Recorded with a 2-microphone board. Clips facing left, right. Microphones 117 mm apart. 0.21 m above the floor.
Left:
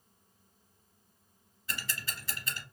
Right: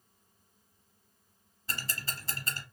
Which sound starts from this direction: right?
Ticking, at 1.7 s.